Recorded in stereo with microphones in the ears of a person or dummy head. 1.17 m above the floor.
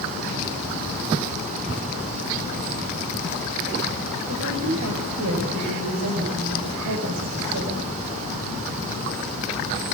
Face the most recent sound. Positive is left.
turn(degrees=-85)